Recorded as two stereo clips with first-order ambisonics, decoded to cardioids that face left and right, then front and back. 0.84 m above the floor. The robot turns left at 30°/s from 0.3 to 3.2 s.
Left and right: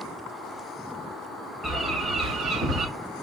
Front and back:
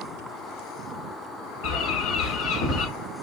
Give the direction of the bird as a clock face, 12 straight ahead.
12 o'clock.